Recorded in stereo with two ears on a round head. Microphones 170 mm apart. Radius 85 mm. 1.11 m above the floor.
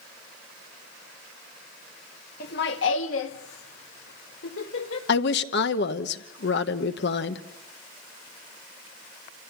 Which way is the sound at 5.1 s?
60° left (ahead or behind).